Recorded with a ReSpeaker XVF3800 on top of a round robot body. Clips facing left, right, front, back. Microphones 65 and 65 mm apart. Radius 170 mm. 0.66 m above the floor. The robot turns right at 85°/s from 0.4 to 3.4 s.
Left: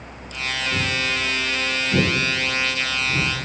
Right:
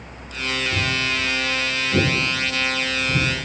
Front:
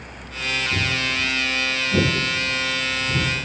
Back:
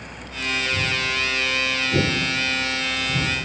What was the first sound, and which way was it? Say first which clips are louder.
Footsteps: left 2 dB, even; 15° right.